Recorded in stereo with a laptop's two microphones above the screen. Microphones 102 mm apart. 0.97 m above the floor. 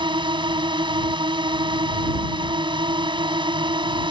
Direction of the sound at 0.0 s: 50° right (ahead or behind).